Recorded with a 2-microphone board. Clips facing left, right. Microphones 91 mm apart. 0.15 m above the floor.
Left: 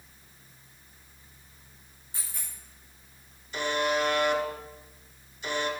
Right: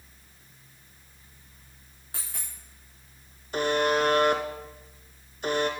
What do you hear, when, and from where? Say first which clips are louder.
2.1 s a dropped coin: right 2 dB; 75° right (ahead or behind), 3.5 m
3.5 s a buzzer: right 3 dB; 50° right (ahead or behind), 1.3 m